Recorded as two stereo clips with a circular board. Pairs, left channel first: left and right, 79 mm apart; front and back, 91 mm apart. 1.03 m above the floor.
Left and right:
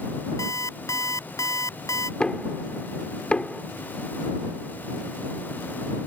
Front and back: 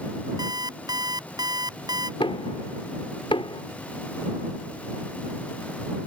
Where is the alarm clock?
135° left.